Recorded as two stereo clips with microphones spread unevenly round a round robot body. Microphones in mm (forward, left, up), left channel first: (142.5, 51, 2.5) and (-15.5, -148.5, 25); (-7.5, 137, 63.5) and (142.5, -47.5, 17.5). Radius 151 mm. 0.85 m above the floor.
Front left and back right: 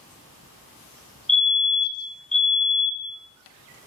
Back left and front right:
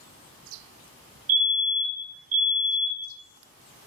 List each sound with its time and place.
1.3 s a fire alarm: 35° right, 8 m